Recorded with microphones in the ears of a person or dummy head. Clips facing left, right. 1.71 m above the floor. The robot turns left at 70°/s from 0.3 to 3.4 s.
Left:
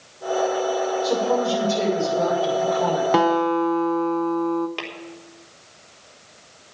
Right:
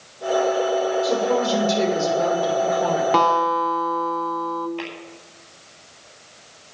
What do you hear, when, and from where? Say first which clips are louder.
1.0 s a woman speaking: right 1 dB; 30° right, 6.5 m; by 3.0 s 170° right, 6.5 m
3.1 s a guitar: left 2 dB; 10° left (ahead or behind), 0.8 m; by 4.7 s 30° left (ahead or behind), 0.8 m
4.8 s tapping: right 3 dB; 75° left (ahead or behind), 3.5 m